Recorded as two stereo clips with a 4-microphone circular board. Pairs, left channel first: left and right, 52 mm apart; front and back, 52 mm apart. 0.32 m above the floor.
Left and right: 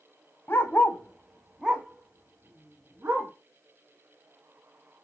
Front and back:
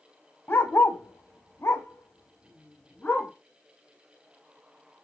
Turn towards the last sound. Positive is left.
turn(degrees=-50)